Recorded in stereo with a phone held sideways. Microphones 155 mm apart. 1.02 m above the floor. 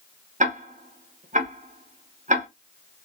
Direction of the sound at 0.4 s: 50° right (ahead or behind).